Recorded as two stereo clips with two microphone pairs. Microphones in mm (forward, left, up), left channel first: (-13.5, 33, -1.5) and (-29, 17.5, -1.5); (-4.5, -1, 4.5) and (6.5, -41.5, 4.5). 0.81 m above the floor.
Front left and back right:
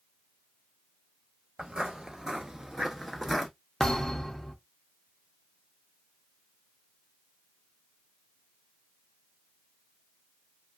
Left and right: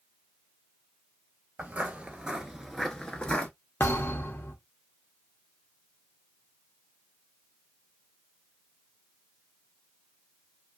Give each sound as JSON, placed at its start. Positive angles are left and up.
{"t": 1.6, "sound": "footsteps", "azimuth_deg": -105, "distance_m": 1.1}
{"t": 3.8, "sound": "a thud", "azimuth_deg": 125, "distance_m": 0.7}